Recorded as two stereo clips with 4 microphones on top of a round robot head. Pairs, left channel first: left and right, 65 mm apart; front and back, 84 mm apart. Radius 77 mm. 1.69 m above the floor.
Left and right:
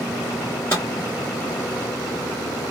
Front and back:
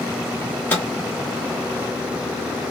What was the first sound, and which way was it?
A microwave, 50° left.